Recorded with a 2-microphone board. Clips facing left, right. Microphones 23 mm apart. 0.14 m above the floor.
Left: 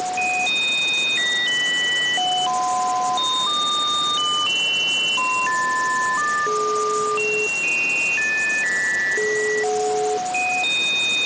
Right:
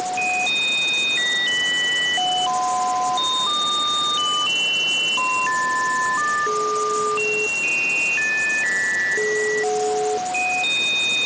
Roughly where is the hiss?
I don't hear a hiss.